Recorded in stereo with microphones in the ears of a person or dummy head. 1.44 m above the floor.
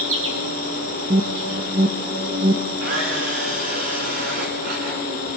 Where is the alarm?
20° right (ahead or behind), 0.8 m.